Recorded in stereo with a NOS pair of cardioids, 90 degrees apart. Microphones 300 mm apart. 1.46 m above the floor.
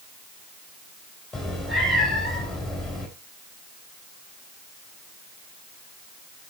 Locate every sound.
1.3 s a cat meowing: straight ahead, 3.5 m